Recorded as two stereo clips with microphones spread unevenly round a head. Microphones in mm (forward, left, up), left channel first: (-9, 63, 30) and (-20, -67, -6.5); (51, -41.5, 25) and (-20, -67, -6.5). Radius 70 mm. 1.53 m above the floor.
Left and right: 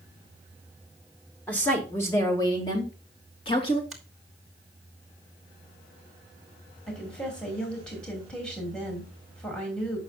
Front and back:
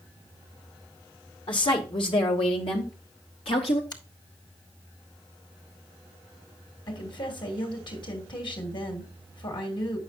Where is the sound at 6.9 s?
Straight ahead, 2.5 m.